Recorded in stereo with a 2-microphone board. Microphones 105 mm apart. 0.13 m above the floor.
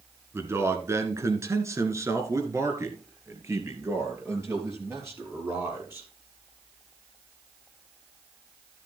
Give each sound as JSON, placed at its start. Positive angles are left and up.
{"t": 0.3, "sound": "a man speaking", "side_deg": -25, "distance_m": 1.6}